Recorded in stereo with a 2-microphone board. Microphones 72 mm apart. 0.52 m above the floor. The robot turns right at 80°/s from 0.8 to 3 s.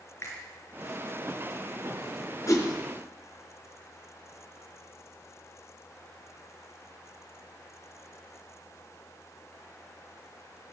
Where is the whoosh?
45° left (ahead or behind), 4.5 m; by 2.7 s 30° left (ahead or behind), 4.5 m.